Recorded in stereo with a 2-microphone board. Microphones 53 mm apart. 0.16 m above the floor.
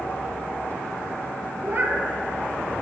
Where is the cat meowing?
45° right (ahead or behind), 1.4 m.